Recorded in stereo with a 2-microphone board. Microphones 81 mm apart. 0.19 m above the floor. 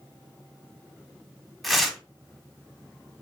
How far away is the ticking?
I don't hear ticking.